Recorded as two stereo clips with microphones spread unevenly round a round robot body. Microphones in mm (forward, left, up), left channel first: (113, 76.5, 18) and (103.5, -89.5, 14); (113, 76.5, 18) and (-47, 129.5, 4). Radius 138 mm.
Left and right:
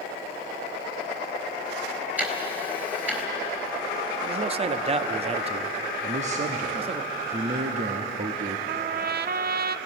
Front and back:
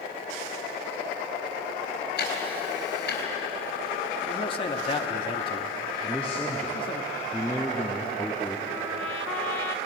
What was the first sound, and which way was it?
Ticking, 15° right.